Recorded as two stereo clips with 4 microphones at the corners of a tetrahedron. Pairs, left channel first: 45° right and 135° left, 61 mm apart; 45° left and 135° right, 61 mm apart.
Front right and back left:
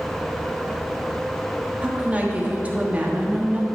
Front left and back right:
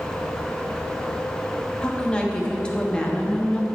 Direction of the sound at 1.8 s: 105° left.